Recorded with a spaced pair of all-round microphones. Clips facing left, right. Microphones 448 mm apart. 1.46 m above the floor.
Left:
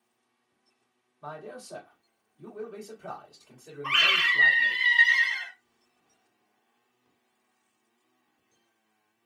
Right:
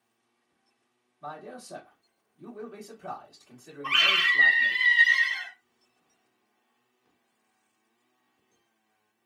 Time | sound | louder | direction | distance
1.2 | a man speaking | left 1 dB | 40° right (ahead or behind) | 1.4 m
3.8 | a scream | even | 55° right (ahead or behind) | 1.3 m